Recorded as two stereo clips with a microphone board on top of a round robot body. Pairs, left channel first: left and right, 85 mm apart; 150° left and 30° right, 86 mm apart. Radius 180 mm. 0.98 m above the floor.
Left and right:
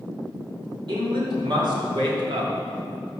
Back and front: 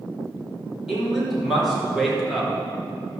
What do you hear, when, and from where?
0.9 s a man speaking: 115° right, 4.5 m